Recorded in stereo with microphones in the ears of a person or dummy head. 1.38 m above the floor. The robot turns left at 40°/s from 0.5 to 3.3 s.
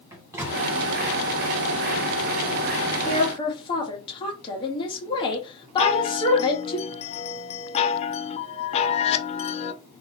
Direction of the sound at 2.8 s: 50° left (ahead or behind).